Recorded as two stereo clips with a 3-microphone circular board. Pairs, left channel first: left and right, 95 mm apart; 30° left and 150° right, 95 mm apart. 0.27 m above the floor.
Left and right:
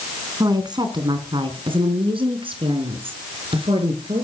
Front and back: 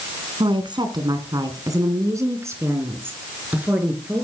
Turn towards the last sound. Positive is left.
turn(degrees=-75)